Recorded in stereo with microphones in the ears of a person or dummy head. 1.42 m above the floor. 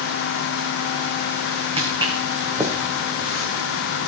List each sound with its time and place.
1.8 s footsteps: 30° right (ahead or behind), 3 m; by 4.1 s 5° left (ahead or behind), 3.5 m